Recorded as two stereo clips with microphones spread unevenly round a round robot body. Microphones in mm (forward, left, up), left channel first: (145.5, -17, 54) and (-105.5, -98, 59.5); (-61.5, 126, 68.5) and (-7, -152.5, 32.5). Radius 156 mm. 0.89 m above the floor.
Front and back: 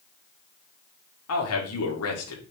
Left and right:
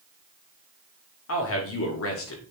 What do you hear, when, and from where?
1.3 s a man speaking: 55° left, 2.5 m